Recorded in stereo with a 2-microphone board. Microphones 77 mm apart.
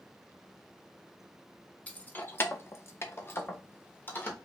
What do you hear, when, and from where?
1.9 s keys jangling: 20° left (ahead or behind), 0.6 m; by 4.3 s 25° left (ahead or behind), 1.1 m